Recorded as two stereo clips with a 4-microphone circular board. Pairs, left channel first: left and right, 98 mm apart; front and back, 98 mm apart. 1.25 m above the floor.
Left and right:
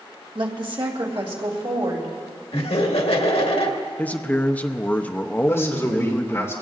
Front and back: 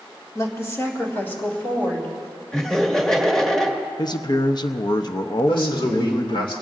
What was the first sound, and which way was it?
A woman speaking, 55° right.